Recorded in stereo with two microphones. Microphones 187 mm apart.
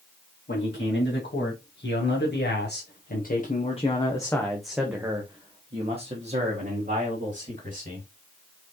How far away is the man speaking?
About 2.5 m.